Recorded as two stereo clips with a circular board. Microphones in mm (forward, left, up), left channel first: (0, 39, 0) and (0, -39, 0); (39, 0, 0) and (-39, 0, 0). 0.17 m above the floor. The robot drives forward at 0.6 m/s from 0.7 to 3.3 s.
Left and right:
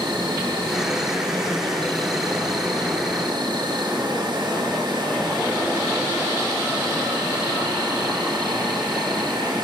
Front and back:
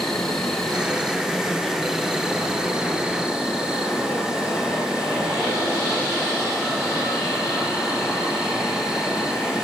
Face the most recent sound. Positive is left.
turn(degrees=-100)